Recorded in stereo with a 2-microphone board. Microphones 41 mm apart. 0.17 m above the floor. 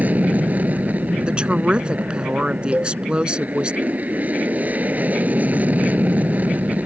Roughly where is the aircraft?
Right.